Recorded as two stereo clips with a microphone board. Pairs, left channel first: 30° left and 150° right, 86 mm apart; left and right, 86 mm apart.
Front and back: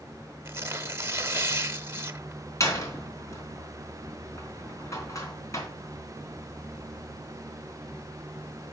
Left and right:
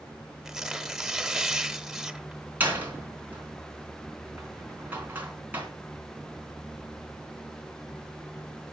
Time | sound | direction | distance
0.5 | tearing paper | 175° right | 0.9 m
2.6 | a door slam | 20° right | 3.5 m